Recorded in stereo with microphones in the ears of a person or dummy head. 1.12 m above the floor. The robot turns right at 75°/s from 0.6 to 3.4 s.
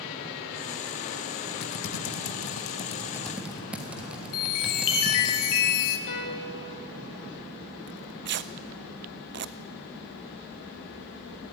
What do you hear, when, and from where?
1.6 s typing on a keyboard: 50° left (ahead or behind), 1.5 m; by 5.3 s 5° right (ahead or behind), 1.5 m
4.3 s a chime: 80° left, 2.5 m
6.1 s a piano: 50° left (ahead or behind), 2.5 m
7.9 s tearing paper: 50° right (ahead or behind), 0.6 m